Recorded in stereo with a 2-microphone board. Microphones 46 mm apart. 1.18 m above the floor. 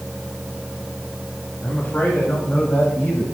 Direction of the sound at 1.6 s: 40° left (ahead or behind).